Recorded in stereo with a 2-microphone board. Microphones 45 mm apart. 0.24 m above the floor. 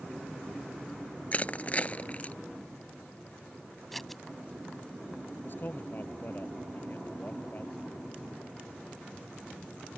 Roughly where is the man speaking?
Left.